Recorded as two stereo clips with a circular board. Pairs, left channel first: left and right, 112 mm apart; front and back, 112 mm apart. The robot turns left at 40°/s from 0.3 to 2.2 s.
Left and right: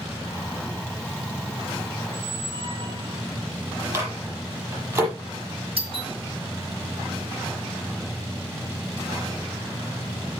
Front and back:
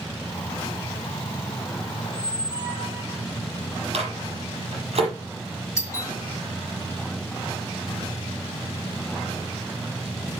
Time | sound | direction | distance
2.0 | a squeak | 50° right | 4.5 m
3.9 | a microwave | 150° right | 6.5 m
5.8 | a doorbell | 65° right | 4.5 m